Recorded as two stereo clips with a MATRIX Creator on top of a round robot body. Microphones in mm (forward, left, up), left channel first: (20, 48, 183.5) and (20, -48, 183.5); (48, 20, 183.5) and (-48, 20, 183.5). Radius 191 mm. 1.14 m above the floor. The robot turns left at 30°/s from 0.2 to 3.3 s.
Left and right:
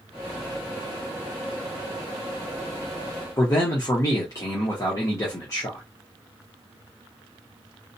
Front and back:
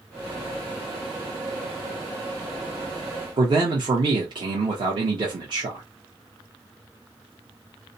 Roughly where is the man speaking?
Behind left.